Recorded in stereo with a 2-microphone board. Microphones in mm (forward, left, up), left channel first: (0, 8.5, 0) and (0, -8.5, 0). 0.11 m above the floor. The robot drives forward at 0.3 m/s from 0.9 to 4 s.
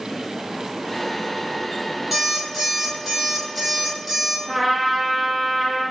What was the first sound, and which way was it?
An alarm clock, 10° right (ahead or behind).